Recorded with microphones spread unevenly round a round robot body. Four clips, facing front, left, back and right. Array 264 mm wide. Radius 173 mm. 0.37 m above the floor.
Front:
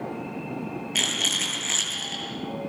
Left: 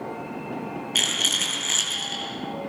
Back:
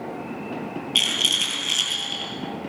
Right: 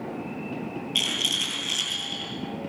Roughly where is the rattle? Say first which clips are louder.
Left 2 dB, back 1 dB; left.